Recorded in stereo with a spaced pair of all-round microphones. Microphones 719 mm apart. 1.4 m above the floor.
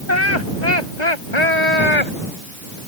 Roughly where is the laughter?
Left.